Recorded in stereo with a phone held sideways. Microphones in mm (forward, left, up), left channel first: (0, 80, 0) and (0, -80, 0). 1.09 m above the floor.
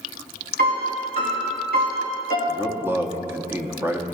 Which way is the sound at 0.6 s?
75° right (ahead or behind).